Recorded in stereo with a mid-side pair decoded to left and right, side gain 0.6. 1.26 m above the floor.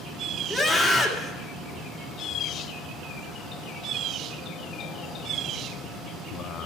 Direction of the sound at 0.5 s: 10° left.